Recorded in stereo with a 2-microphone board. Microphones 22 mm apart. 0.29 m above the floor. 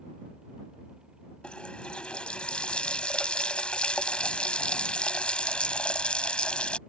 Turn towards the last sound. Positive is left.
turn(degrees=55)  # may be behind; listen again after turning